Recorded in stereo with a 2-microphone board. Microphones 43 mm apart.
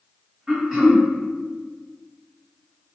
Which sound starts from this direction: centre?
Throat clearing, at 0.5 s.